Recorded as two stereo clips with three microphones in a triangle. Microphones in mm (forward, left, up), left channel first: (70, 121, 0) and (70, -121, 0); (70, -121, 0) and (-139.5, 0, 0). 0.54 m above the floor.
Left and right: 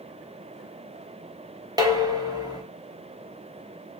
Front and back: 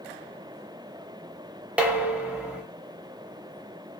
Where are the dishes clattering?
135° right, 0.6 m.